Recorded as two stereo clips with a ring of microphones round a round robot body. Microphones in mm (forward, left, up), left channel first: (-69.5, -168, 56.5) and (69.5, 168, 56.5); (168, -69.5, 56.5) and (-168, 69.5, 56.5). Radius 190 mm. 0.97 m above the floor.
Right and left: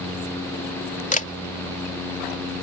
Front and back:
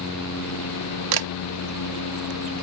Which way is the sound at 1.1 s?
Straight behind.